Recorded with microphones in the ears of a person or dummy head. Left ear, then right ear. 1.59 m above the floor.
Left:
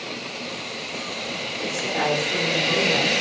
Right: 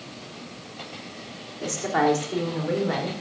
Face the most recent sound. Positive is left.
turn(degrees=-45)  # may be behind; listen again after turning